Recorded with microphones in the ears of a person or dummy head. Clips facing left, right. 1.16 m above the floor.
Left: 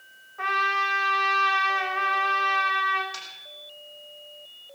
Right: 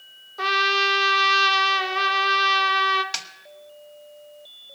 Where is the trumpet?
50° right (ahead or behind), 1.1 m.